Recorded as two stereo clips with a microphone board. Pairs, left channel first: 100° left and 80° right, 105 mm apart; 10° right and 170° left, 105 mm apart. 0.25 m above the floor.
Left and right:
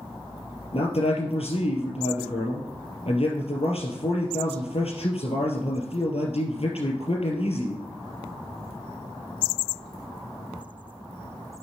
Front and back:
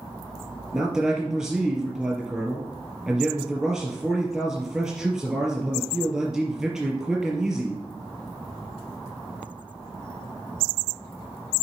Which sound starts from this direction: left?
A man speaking, at 0.7 s.